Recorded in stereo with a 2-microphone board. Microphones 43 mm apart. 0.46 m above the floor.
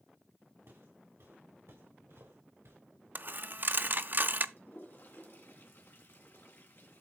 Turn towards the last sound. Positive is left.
turn(degrees=60)  # may be behind; listen again after turning